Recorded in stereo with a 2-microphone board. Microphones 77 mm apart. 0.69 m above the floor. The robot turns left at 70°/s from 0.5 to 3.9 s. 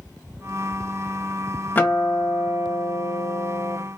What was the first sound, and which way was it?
A guitar, 155° left.